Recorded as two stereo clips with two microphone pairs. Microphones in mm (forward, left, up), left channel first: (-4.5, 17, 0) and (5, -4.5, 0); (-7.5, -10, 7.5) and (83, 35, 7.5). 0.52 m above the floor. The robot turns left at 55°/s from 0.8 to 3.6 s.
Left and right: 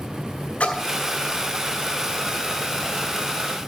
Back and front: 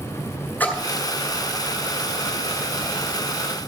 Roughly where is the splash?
Behind left.